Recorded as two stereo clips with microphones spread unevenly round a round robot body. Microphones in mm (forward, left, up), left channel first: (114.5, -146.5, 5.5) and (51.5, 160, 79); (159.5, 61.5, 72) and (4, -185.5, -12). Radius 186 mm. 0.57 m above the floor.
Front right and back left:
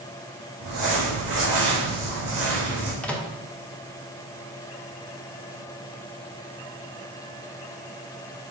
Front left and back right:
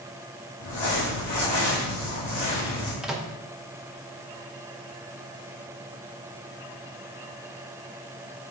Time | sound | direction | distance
0.6 | crumpling | 85° left | 2.5 m
3.0 | a microwave | 105° right | 0.9 m